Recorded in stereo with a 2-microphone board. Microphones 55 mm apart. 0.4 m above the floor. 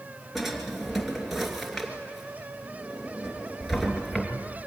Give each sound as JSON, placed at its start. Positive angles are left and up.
{"t": 0.3, "sound": "a drawer", "side_deg": -5, "distance_m": 2.5}